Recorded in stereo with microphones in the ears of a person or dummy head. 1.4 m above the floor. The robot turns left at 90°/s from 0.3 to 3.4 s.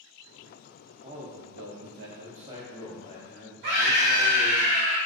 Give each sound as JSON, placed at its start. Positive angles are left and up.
{"t": 1.0, "sound": "a man speaking", "azimuth_deg": -25, "distance_m": 0.7}
{"t": 3.6, "sound": "a scream", "side_deg": -55, "distance_m": 1.0}